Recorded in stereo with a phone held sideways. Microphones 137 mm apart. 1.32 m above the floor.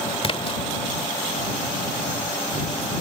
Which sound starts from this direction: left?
A splash, at 0.2 s.